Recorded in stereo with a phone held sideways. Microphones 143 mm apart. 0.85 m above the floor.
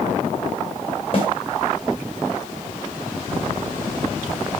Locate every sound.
1.1 s a snare drum: 40° left (ahead or behind), 3 m